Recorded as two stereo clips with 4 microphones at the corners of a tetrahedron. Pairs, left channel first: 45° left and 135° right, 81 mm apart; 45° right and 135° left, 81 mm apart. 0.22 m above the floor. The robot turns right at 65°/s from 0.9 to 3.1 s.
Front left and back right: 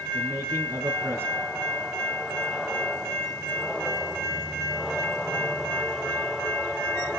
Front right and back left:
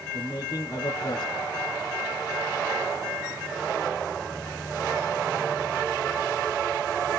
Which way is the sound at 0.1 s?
95° right.